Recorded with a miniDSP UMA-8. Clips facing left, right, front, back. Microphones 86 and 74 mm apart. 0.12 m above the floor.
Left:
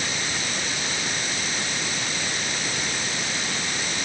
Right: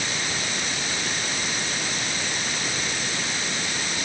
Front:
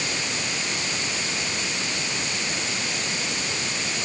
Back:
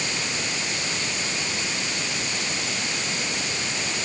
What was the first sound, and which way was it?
Only background noise.